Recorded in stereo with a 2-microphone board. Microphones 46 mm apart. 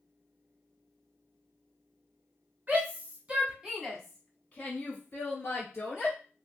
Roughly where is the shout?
Right.